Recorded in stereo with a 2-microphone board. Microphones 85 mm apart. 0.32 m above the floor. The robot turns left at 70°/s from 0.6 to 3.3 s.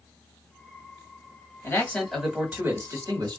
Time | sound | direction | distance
1.6 | a man speaking | 40° left | 1.6 m